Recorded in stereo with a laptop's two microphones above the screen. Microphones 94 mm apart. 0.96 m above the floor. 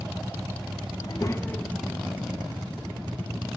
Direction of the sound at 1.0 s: 45° left (ahead or behind).